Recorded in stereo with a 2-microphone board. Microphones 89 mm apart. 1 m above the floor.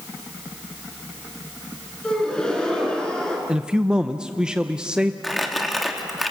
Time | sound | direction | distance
2.0 | a gasp | 10° left (ahead or behind) | 4 m
3.5 | a man speaking | 10° right (ahead or behind) | 0.7 m
5.2 | crumpling | centre (ahead or behind) | 1.9 m